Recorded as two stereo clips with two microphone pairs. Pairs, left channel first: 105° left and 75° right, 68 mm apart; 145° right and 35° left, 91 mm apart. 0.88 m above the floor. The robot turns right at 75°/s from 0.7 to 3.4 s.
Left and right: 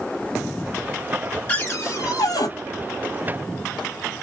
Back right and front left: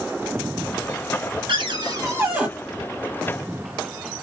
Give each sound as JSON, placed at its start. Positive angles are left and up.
{"t": 1.5, "sound": "a cupboard door", "azimuth_deg": 35, "distance_m": 1.7}